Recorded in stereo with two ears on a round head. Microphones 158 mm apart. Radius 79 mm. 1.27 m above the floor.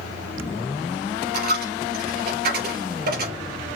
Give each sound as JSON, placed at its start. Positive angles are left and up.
{"t": 1.3, "sound": "a dropped coin", "side_deg": -60, "distance_m": 4.0}